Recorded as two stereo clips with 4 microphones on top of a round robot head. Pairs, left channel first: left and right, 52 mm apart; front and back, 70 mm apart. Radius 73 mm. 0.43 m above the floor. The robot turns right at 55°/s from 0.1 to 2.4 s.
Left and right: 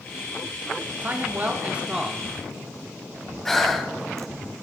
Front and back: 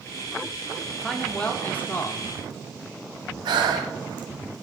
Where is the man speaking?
85° right, 0.9 m; by 2.3 s 10° right, 0.9 m.